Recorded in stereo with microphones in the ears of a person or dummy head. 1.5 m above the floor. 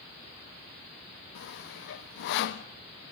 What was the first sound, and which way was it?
Sawing, 65° left (ahead or behind).